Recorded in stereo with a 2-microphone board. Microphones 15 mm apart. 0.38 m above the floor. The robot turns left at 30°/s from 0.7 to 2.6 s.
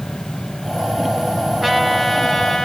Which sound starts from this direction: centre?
A trumpet, at 1.6 s.